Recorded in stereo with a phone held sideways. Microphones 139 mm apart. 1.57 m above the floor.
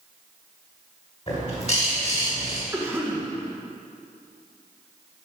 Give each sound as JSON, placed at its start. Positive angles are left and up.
{"t": 1.3, "sound": "a bird", "side_deg": 50, "distance_m": 2.0}
{"t": 2.7, "sound": "a cough", "side_deg": -10, "distance_m": 1.3}